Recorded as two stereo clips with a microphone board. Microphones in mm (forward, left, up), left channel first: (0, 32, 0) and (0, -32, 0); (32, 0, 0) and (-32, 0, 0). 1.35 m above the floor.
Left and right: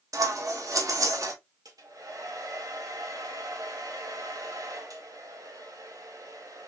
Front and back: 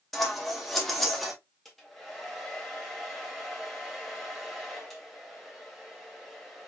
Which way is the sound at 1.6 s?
90° right.